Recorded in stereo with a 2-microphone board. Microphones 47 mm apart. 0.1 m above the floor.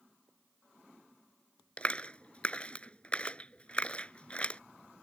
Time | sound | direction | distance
1.8 | a clap | 25° left (ahead or behind) | ?